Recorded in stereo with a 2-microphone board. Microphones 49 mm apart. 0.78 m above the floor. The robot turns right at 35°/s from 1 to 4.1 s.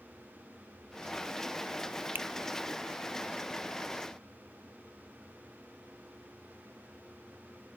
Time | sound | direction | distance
2.1 | a finger snap | 45° right (ahead or behind) | 0.7 m